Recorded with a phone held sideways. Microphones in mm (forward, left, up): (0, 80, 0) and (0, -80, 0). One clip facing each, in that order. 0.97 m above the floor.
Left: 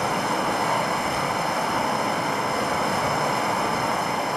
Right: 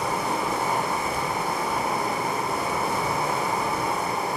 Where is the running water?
70° left (ahead or behind), 2.5 m.